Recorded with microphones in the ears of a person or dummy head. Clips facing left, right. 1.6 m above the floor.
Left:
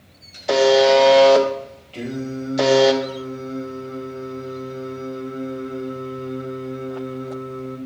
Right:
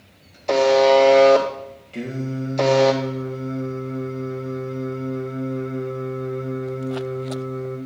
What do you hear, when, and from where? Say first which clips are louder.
0.5 s a buzzer: left 1 dB; centre (ahead or behind), 0.8 m
1.9 s singing: left 1 dB; 15° right (ahead or behind), 1.8 m